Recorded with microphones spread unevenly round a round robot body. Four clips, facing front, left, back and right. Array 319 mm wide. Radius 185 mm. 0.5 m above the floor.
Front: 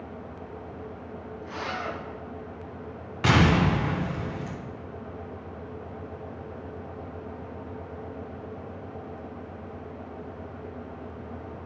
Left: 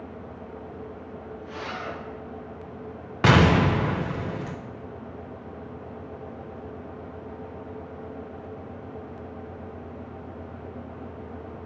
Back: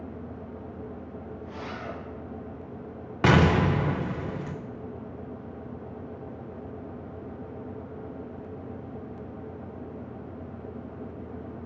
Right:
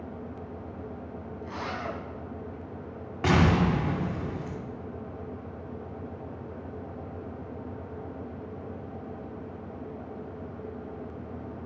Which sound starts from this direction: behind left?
An explosion, at 3.2 s.